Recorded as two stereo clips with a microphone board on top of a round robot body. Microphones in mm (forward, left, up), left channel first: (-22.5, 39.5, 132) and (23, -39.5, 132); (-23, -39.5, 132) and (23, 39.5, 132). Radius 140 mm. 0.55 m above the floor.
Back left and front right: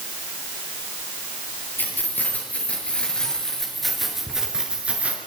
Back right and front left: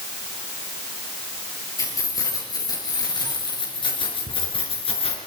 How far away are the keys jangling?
About 8.5 m.